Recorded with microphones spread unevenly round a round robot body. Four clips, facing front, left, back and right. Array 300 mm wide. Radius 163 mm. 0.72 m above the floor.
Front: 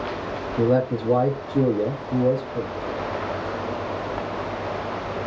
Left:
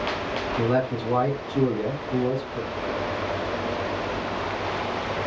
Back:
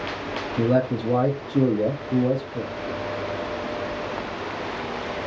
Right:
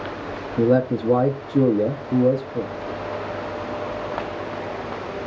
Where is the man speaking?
65° right, 0.7 m.